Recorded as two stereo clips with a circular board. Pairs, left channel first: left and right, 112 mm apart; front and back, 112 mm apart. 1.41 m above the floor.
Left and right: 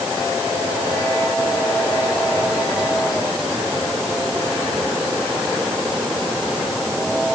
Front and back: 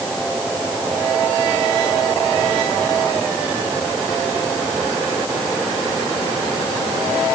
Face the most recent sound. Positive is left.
No sound to turn to.